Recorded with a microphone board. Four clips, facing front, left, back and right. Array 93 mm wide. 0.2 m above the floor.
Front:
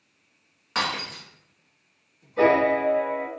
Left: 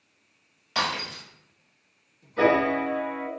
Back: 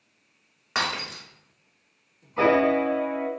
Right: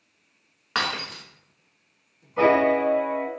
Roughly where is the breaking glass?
Right.